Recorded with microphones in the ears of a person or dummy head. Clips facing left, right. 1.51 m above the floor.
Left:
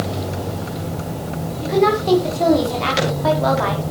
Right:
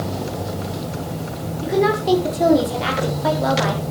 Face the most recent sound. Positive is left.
turn(degrees=0)  # may be behind; listen again after turning